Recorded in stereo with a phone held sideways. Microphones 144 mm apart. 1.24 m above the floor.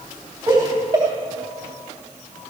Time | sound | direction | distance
0.5 | laughter | 30° right (ahead or behind) | 3 m